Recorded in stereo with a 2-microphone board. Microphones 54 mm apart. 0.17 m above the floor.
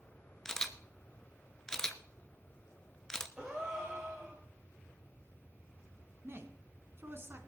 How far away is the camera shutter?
About 0.8 m.